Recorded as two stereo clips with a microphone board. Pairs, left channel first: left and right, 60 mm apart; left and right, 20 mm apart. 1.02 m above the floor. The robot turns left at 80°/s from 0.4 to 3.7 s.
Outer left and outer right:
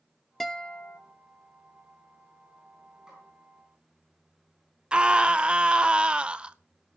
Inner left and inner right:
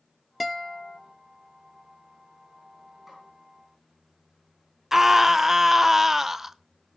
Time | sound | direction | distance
0.4 | a guitar | 170° left | 0.6 m
3.1 | a snare drum | 5° right (ahead or behind) | 9.5 m
4.9 | a scream | 20° right (ahead or behind) | 0.5 m